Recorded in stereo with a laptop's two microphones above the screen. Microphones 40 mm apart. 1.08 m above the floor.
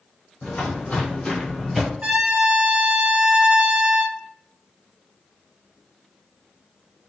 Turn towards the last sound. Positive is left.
turn(degrees=-30)  # may be behind; listen again after turning